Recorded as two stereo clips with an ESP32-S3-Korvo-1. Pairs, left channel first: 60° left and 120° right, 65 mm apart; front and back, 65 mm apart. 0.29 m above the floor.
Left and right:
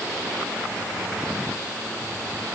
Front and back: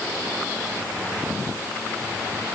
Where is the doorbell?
I don't hear a doorbell.